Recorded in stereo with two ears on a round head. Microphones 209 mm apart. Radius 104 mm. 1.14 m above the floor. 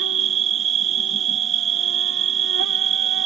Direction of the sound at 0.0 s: 55° right (ahead or behind).